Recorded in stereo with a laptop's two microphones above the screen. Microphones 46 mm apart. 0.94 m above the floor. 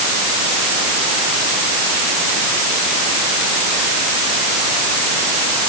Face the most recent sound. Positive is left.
No sound to turn to.